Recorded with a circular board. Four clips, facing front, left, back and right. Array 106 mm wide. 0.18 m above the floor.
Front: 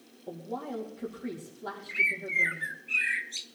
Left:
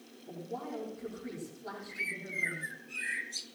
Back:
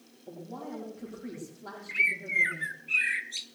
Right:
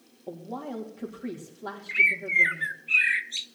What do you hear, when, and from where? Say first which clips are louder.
0.3 s a woman speaking: right 4 dB, front 4 dB; 75° right, 4.5 m
1.9 s a bird: right 13 dB, back 1 dB; 95° right, 0.6 m